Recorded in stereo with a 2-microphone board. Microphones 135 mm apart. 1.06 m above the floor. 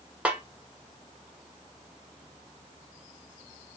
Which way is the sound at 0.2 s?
10° right (ahead or behind).